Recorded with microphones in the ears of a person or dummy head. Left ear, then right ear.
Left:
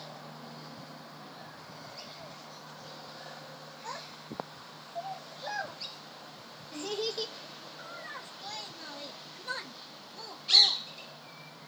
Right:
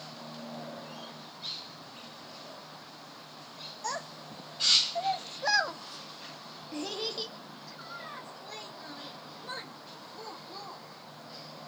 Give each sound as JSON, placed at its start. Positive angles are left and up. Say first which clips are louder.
{"t": 3.8, "sound": "a child speaking", "louder": "right 5 dB", "side_deg": -60, "distance_m": 1.0}